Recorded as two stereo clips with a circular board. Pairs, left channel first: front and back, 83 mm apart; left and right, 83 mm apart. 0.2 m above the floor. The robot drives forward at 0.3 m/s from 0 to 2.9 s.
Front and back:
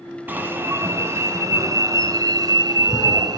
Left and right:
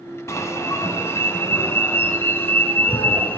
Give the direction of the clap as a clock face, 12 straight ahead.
I don't hear a clap.